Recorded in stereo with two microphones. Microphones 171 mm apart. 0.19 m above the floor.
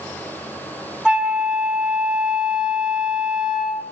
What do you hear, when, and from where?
1.1 s a flute: 5° right (ahead or behind), 1.2 m